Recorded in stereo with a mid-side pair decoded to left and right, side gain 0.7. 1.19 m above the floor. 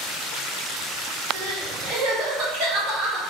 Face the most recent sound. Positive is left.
turn(degrees=-65)